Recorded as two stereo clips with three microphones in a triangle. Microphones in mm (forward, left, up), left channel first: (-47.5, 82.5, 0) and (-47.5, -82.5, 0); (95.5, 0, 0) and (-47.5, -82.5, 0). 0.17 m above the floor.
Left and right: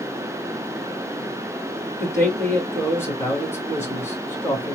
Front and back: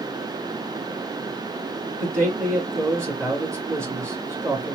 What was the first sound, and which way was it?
A man speaking, 150° left.